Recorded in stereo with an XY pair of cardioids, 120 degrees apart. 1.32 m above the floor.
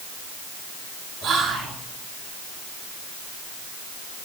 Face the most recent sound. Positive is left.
turn(degrees=-60)